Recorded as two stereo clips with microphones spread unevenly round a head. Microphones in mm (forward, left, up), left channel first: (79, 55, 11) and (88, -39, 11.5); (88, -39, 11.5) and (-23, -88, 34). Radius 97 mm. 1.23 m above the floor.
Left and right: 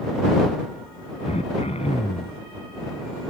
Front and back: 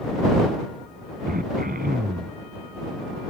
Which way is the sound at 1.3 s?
155° left.